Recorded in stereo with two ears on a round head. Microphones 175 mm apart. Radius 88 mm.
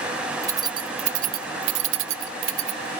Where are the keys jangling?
15° right (ahead or behind); by 2.9 s 60° right (ahead or behind).